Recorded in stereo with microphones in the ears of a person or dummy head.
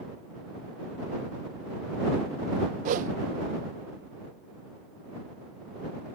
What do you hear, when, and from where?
2.9 s a whoosh: 50° right (ahead or behind)